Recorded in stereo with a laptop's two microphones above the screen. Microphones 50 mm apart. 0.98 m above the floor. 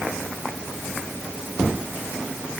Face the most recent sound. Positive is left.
No sound to turn to.